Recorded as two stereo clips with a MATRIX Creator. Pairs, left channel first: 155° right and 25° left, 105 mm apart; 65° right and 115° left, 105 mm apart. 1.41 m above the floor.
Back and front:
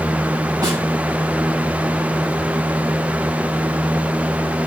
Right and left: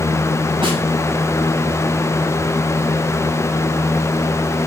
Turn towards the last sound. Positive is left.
turn(degrees=75)